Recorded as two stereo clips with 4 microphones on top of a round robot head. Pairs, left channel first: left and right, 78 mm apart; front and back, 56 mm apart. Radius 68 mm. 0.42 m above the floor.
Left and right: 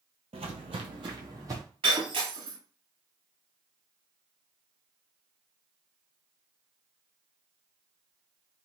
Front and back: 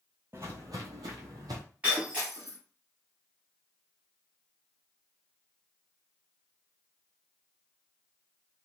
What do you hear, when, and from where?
0.3 s footsteps: 110° right, 0.7 m; by 1.6 s 150° right, 1.1 m
1.8 s breaking glass: 105° right, 1.9 m